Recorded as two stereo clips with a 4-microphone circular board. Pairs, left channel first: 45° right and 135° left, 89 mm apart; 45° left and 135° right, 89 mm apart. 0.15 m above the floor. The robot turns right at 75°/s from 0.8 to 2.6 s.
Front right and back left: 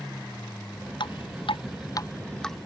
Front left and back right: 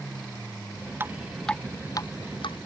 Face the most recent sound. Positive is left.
turn(degrees=50)